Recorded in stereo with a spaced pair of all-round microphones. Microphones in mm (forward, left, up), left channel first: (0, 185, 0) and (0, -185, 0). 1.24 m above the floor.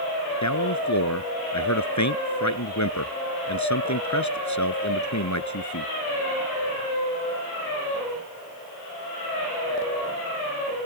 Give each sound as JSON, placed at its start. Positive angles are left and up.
{"t": 0.4, "sound": "a man speaking", "side_deg": 50}